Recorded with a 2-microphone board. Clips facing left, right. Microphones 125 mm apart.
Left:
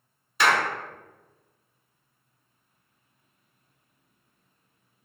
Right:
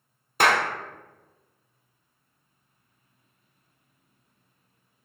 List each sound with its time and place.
0.4 s a clap: 45° right (ahead or behind), 0.7 m